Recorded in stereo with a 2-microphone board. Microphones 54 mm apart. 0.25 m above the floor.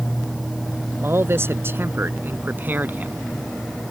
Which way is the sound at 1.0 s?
50° right (ahead or behind).